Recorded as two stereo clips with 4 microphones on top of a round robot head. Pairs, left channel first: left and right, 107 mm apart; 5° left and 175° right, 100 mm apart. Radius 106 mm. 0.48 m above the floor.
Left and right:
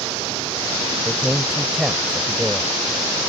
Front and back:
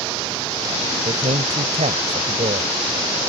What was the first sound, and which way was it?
A man speaking, 175° right.